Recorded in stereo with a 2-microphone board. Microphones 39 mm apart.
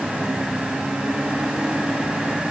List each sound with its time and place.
Only background noise.